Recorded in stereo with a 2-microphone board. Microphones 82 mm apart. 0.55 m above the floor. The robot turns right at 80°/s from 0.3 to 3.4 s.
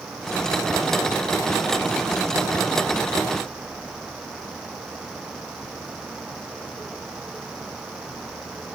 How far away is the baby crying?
No baby crying in this recording.